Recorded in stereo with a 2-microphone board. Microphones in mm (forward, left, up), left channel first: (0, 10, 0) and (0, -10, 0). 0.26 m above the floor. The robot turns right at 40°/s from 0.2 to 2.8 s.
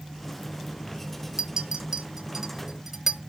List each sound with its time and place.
1.4 s a clink: 35° right (ahead or behind), 0.7 m; by 3.2 s 20° right (ahead or behind), 0.7 m